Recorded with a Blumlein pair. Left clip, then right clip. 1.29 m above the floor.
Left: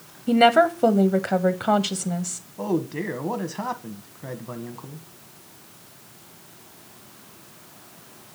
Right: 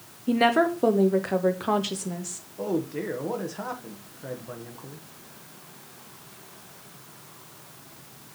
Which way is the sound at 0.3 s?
10° left.